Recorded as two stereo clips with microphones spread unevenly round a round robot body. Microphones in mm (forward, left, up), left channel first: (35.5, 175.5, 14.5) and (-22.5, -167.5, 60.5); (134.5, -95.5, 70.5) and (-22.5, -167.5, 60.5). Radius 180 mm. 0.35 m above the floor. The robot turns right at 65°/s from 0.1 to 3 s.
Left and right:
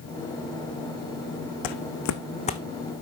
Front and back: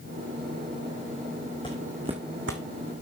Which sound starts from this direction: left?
Footsteps, at 1.6 s.